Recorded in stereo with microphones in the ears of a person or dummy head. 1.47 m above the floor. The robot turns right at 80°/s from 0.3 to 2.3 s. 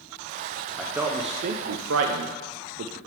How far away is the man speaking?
About 0.5 m.